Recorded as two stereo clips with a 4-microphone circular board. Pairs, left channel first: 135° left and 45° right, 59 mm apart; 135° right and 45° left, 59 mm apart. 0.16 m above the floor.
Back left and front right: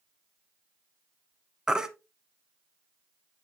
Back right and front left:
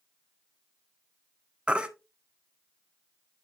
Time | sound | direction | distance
1.7 | a baby crying | 10° left | 0.7 m